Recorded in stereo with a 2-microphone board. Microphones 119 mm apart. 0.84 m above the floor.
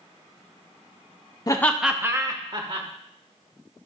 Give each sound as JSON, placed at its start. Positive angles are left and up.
{"t": 1.5, "sound": "laughter", "side_deg": 30, "distance_m": 0.7}